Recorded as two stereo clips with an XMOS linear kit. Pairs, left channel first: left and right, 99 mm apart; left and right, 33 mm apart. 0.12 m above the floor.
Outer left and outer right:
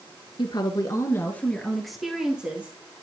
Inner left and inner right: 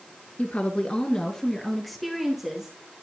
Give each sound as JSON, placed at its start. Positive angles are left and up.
{"t": 0.4, "sound": "a woman speaking", "side_deg": 50, "distance_m": 1.8}